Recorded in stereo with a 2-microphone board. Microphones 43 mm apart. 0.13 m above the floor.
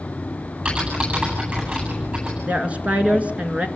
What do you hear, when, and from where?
0.7 s typing on a keyboard: 35° right (ahead or behind), 10 m
2.5 s a woman speaking: 30° right (ahead or behind), 1.8 m